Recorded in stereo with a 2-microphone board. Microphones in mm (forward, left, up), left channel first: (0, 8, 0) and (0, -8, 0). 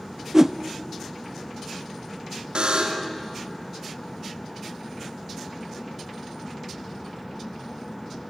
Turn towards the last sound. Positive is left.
turn(degrees=-75)  # may be behind; listen again after turning